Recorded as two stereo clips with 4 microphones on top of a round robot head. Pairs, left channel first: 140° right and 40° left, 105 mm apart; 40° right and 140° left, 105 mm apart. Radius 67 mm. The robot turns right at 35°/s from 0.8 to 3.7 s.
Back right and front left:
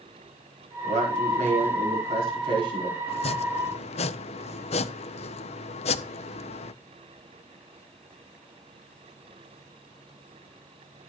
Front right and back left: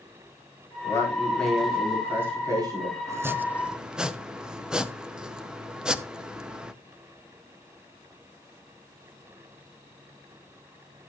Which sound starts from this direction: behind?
Chopping, at 3.1 s.